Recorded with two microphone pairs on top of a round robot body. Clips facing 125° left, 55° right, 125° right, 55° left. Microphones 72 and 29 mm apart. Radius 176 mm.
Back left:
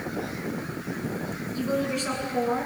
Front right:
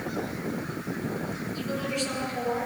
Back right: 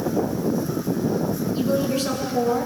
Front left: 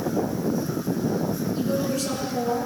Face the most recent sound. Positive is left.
turn(degrees=175)